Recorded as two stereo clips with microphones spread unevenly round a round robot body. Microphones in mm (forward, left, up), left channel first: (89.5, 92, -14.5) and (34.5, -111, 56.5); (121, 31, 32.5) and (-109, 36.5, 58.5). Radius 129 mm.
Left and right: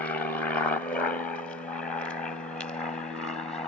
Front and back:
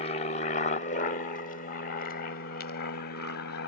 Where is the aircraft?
25° left; by 3.7 s 5° left.